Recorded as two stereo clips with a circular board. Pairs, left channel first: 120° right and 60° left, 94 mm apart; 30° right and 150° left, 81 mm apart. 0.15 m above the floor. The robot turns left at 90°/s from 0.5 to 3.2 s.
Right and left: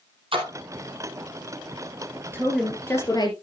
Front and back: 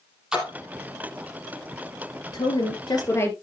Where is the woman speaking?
5° right, 4 m; by 3.3 s 85° right, 4 m.